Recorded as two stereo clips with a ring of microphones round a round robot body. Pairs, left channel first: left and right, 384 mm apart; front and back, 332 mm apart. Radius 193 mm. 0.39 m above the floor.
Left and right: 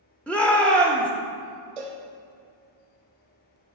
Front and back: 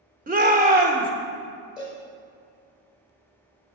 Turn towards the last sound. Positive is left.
turn(degrees=-90)